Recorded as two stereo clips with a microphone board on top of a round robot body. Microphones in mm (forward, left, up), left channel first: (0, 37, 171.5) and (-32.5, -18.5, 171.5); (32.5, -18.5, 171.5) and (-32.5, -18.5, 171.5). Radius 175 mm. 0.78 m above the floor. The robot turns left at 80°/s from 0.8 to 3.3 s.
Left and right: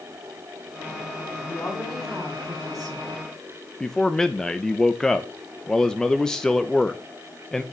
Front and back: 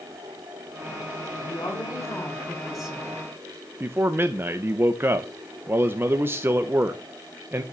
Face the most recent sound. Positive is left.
turn(degrees=140)